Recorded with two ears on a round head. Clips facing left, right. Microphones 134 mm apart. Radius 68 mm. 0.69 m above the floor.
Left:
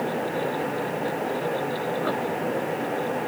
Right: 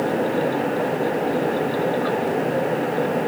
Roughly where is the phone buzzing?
I don't hear a phone buzzing.